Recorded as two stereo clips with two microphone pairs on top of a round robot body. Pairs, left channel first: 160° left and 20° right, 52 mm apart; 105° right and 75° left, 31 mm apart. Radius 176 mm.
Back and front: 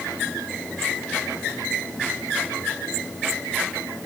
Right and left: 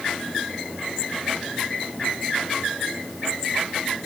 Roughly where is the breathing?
I don't hear breathing.